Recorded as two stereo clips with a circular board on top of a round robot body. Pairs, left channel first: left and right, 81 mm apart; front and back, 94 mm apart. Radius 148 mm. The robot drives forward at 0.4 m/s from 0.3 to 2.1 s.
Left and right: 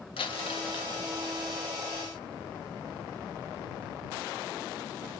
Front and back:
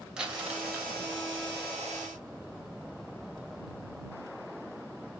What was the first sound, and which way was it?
Crumpling, 100° left.